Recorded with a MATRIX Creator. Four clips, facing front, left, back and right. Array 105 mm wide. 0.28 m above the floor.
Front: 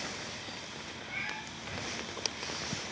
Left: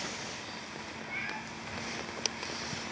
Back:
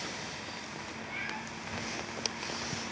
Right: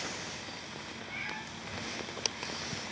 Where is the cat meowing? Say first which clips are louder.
Left 2 dB, even; straight ahead, 5.5 m.